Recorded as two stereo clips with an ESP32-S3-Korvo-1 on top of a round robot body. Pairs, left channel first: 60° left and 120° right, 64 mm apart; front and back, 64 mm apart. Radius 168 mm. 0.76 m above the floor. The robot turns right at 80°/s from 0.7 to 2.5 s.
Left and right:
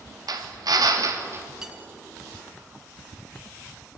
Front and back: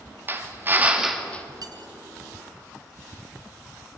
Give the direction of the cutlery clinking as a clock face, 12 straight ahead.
7 o'clock.